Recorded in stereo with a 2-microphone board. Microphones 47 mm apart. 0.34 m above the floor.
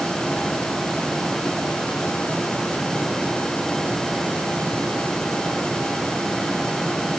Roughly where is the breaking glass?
I don't hear breaking glass.